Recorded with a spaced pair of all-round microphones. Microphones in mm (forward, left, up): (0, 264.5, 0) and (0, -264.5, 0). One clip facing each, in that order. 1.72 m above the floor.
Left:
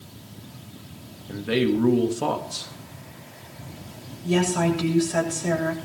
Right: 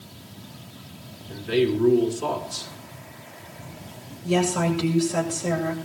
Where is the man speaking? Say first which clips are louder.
Even; 75° left (ahead or behind), 2.5 m.